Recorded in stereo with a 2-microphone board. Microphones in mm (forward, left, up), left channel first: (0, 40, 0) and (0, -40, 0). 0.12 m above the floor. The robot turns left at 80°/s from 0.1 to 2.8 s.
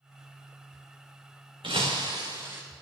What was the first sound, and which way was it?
Breaking glass, 80° right.